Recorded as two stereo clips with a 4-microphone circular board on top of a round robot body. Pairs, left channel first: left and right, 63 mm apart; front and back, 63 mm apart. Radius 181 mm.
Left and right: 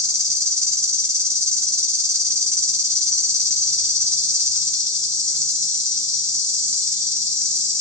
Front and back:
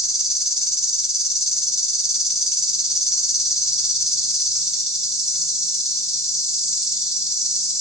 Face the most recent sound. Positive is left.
turn(degrees=-100)